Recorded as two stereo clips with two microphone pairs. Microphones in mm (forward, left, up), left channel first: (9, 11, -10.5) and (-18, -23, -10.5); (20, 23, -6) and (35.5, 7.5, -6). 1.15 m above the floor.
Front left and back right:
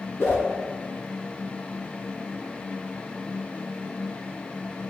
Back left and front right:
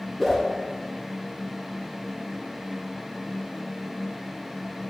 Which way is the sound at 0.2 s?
60° left.